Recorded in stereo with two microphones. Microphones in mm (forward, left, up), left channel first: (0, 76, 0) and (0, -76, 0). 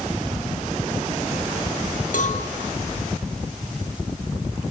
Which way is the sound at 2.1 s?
65° left (ahead or behind).